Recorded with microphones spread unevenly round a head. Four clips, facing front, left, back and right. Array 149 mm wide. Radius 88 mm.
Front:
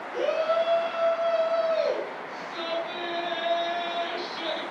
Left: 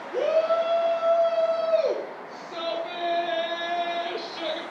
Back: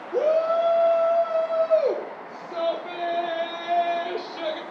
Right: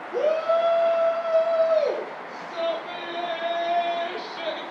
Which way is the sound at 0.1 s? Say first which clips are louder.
Even, back 4 dB; straight behind.